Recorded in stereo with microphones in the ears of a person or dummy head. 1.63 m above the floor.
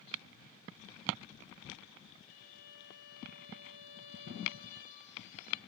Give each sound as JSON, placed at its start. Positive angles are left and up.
{"t": 2.2, "sound": "a violin", "side_deg": 40, "distance_m": 1.7}